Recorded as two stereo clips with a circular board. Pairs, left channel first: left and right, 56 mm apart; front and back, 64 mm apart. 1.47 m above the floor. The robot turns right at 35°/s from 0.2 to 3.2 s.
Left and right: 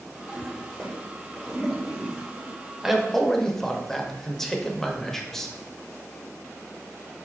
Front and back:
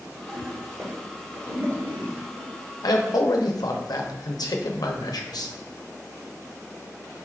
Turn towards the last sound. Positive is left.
turn(degrees=10)